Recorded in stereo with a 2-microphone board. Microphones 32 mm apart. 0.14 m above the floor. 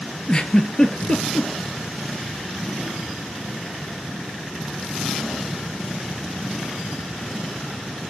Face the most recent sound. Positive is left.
turn(degrees=25)  # may be behind; listen again after turning